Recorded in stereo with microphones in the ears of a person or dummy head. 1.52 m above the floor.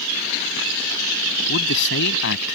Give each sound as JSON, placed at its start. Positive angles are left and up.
{"t": 1.5, "sound": "a man speaking", "side_deg": 70}